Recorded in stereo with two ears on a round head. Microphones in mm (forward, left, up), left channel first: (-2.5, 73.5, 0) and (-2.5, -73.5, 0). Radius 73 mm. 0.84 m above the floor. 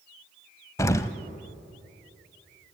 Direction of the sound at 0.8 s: 20° left (ahead or behind).